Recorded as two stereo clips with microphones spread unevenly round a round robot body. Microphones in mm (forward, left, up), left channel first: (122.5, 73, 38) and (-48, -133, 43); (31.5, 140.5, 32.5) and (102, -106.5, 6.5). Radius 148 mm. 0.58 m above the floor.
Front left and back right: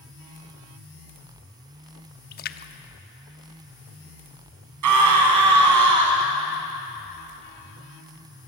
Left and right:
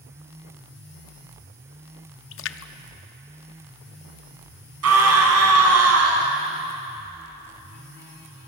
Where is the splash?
90° left, 0.8 m.